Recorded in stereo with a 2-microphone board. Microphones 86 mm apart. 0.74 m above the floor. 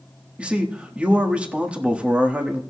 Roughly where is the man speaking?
Centre.